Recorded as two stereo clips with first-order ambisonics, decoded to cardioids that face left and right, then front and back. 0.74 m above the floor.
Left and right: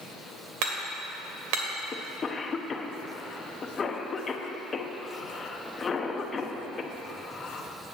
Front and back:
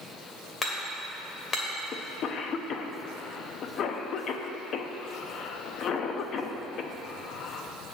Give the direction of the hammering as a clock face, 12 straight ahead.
2 o'clock.